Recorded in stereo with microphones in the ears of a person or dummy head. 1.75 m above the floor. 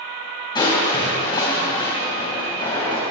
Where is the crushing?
25° left (ahead or behind), 2.5 m.